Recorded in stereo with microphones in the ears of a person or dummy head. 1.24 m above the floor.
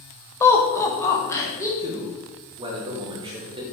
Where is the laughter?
15° left (ahead or behind), 1.1 m.